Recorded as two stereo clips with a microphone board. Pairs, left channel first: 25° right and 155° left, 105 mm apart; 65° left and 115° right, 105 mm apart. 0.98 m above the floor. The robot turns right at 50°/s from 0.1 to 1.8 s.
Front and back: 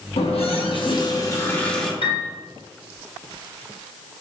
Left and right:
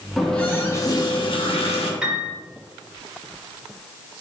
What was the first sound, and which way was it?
A running tap, 20° right.